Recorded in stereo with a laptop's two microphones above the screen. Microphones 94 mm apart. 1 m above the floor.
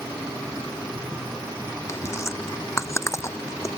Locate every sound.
1.9 s chewing: 30° left (ahead or behind)